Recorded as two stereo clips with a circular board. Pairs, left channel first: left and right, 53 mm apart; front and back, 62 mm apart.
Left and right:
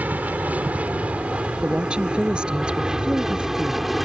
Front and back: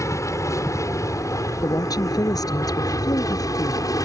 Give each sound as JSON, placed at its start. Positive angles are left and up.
{"t": 0.0, "sound": "an aircraft", "azimuth_deg": -30}
{"t": 1.6, "sound": "a woman speaking", "azimuth_deg": -15}